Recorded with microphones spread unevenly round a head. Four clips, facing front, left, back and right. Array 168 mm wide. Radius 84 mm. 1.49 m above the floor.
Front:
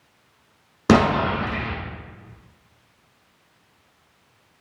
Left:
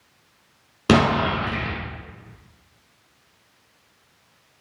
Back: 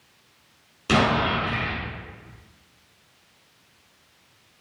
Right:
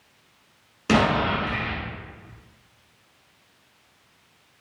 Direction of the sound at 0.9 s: 35° left.